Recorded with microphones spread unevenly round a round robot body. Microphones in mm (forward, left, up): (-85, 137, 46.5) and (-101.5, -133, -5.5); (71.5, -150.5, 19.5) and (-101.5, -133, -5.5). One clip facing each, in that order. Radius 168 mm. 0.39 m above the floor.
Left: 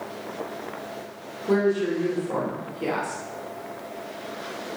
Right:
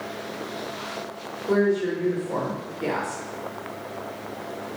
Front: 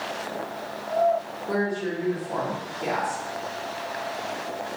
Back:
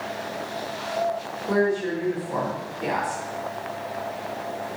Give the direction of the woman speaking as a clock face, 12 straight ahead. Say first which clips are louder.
Even, back 5 dB; 7 o'clock.